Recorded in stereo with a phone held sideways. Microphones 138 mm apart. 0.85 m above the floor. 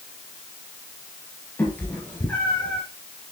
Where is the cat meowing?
15° left (ahead or behind), 5.5 m; by 2.8 s 10° left (ahead or behind), 3.5 m.